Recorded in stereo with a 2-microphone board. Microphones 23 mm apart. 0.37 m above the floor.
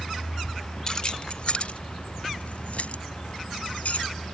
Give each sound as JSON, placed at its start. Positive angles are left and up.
{"t": 0.9, "sound": "keys jangling", "side_deg": 35}